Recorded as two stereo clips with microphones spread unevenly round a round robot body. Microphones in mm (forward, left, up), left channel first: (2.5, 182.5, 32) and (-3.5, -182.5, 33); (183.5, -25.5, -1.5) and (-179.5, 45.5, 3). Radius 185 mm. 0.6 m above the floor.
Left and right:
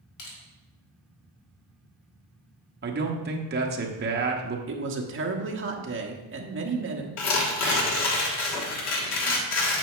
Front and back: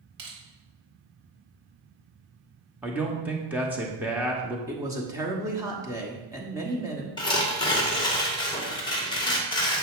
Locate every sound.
0.2 s crushing: 125° left, 2.5 m
2.8 s a man speaking: 110° right, 1.1 m
4.7 s a woman speaking: 115° right, 1.1 m
7.2 s tearing paper: 60° left, 1.3 m